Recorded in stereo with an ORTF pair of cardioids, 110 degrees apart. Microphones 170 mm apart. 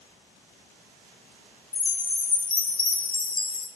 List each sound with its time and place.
1.7 s a chime: 30° left, 1.1 m